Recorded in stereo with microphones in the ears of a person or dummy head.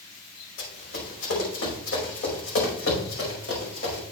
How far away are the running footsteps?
About 5 m.